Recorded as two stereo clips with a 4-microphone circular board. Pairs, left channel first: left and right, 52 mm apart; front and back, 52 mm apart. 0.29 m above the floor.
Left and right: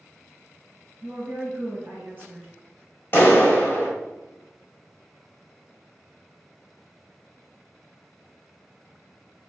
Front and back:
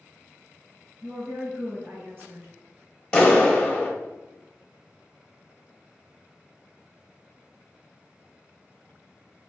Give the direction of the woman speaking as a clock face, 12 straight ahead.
5 o'clock.